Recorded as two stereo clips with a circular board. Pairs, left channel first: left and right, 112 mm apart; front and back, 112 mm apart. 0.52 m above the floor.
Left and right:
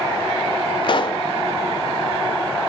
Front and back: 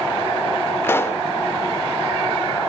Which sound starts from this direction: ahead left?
A pop, at 0.8 s.